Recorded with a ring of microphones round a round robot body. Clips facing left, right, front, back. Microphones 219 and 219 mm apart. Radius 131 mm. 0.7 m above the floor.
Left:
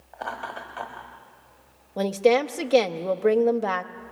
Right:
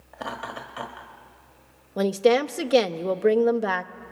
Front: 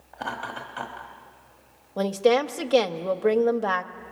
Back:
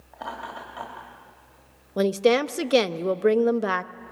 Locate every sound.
0.1 s laughter: 50° right, 1.5 m
2.0 s a woman speaking: 160° right, 0.5 m